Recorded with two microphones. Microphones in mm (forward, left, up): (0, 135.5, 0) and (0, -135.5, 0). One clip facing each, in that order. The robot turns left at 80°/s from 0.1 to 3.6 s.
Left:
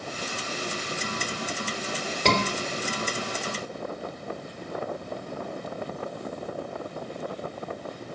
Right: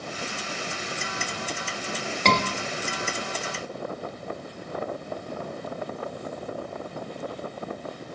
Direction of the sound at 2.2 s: 10° left (ahead or behind).